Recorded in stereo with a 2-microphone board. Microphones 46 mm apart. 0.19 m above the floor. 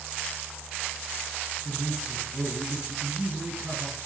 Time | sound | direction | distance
1.6 | a man speaking | 55° right (ahead or behind) | 2.5 m